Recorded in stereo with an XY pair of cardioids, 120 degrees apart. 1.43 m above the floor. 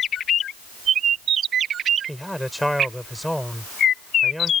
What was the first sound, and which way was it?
A man speaking, straight ahead.